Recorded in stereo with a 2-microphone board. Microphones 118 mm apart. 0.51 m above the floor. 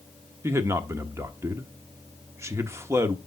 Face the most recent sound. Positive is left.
turn(degrees=-20)  # may be behind; listen again after turning